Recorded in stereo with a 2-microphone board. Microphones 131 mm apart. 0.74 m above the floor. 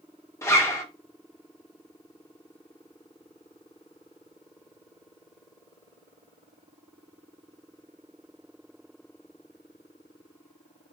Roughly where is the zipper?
Left.